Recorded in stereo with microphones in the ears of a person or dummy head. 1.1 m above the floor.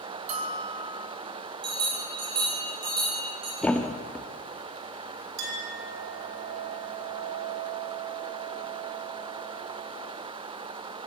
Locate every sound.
0.3 s a bell: 40° right (ahead or behind), 3.5 m
1.6 s a bell: 25° right (ahead or behind), 9.5 m
3.6 s a thud: centre (ahead or behind), 0.7 m
5.4 s a clink: 65° right (ahead or behind), 4.5 m